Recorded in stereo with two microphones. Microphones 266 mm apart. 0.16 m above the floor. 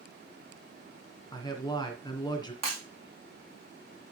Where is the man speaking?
15° left (ahead or behind), 1.9 m.